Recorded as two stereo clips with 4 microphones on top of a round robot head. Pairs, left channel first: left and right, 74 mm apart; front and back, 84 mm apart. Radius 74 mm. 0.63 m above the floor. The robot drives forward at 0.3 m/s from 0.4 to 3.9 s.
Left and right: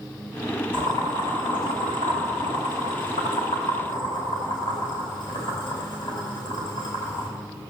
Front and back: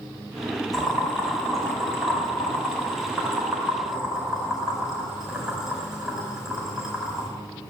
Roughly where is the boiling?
Left.